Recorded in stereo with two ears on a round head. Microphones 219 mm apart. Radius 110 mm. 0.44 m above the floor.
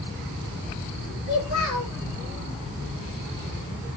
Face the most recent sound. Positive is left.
turn(degrees=70)  # may be behind; listen again after turning